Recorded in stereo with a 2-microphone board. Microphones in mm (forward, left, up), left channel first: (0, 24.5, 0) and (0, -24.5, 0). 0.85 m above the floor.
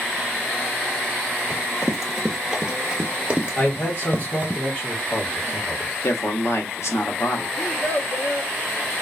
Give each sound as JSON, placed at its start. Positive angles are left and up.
{"t": 1.5, "sound": "running footsteps", "side_deg": -5, "distance_m": 1.2}
{"t": 3.6, "sound": "a man speaking", "side_deg": 35, "distance_m": 1.7}
{"t": 6.0, "sound": "a man speaking", "side_deg": 70, "distance_m": 0.8}
{"t": 7.6, "sound": "a child speaking", "side_deg": 60, "distance_m": 0.9}